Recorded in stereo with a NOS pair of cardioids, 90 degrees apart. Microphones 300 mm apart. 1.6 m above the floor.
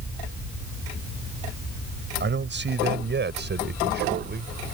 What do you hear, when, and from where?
2.2 s a man speaking: 35° right